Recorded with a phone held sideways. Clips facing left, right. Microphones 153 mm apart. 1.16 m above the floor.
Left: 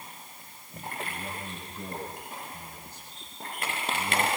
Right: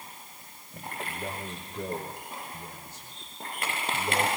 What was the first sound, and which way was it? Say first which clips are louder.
A man speaking: right 2 dB; 60° right (ahead or behind).